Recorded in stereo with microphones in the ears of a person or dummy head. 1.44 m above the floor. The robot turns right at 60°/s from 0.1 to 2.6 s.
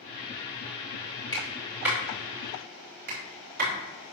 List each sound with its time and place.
1.3 s a clap: 20° left (ahead or behind), 4.5 m; by 3.8 s 55° right (ahead or behind), 4.5 m